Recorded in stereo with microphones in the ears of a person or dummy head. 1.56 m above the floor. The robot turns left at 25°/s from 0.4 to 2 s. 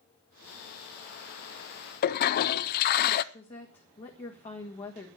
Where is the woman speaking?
30° left (ahead or behind), 1.8 m.